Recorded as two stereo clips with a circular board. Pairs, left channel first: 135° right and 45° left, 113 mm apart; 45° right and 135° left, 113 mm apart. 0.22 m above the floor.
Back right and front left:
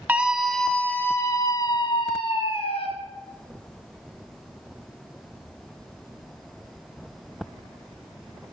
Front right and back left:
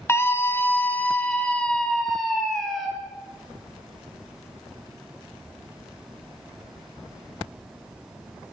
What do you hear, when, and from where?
0.1 s a scream: 15° right, 1.1 m; by 2.9 s 135° right, 1.9 m